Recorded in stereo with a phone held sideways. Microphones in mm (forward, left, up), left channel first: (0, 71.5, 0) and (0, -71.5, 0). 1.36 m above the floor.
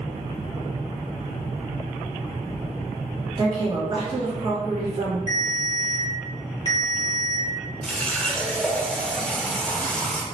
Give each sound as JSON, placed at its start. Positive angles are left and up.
{"t": 3.4, "sound": "a woman speaking", "side_deg": -35, "distance_m": 1.1}
{"t": 5.3, "sound": "a ringtone", "side_deg": -30, "distance_m": 0.9}
{"t": 7.8, "sound": "a running tap", "side_deg": 5, "distance_m": 0.5}